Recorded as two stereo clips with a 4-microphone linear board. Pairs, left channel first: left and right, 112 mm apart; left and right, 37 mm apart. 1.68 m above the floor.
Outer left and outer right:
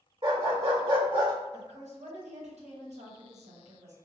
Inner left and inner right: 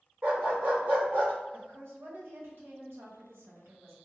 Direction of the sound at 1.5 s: 85° right.